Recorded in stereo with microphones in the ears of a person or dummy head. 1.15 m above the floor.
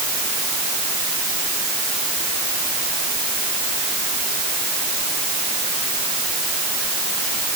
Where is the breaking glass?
No breaking glass in this recording.